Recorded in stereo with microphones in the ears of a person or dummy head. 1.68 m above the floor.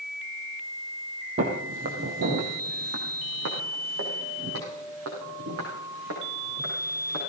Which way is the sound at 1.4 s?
40° right (ahead or behind).